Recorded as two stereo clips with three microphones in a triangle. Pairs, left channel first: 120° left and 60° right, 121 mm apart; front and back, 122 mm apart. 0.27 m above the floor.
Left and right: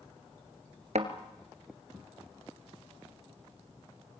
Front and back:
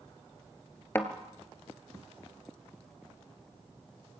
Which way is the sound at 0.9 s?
70° right.